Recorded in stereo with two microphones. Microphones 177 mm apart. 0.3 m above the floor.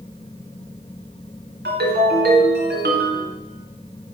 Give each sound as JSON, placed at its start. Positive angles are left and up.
{"t": 1.6, "sound": "a ringtone", "side_deg": -75, "distance_m": 2.5}